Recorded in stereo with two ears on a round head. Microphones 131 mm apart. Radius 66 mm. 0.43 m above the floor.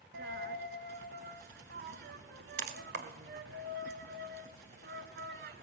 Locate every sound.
0.1 s a dropped coin: 75° right (ahead or behind), 0.9 m